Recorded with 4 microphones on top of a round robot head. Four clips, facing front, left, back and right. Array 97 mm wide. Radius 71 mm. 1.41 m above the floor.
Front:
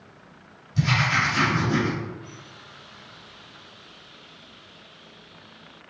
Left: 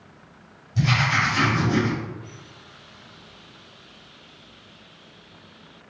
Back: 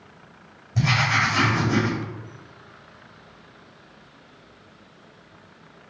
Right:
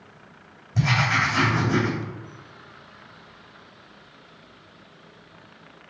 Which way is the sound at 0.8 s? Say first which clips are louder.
Even, back 1 dB; 130° right.